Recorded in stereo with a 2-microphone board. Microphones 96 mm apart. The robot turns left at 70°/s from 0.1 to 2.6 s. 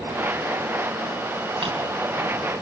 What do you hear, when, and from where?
1.6 s a drawer: 70° right (ahead or behind), 3.5 m; by 1.7 s 65° right (ahead or behind), 3.5 m